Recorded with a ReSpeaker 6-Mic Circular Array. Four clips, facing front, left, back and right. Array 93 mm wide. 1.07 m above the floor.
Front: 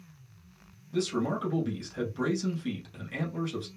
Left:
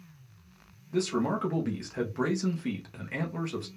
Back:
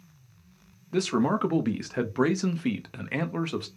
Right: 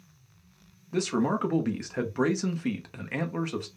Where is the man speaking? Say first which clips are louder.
Right 2 dB, back 5 dB; 160° right, 0.7 m.